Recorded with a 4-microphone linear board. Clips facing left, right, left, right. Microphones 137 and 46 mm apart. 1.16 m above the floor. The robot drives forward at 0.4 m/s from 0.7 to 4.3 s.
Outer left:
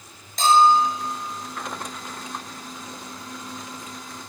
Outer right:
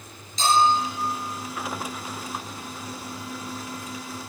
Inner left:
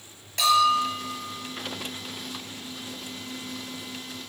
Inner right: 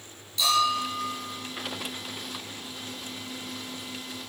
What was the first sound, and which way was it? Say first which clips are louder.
A bell: outer left 4 dB, inner left 4 dB; 55° left (ahead or behind).